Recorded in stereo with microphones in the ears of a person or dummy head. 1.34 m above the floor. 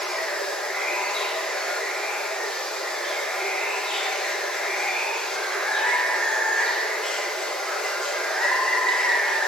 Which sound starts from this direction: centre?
Running water, at 0.0 s.